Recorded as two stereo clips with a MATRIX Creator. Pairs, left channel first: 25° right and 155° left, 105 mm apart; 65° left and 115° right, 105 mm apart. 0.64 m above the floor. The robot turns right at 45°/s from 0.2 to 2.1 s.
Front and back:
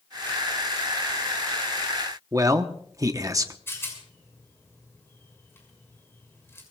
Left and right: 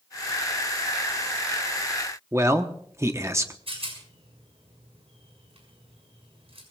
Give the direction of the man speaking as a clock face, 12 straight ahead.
5 o'clock.